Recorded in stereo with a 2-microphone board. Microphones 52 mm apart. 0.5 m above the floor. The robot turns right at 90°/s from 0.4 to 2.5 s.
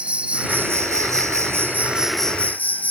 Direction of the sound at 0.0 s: 155° right.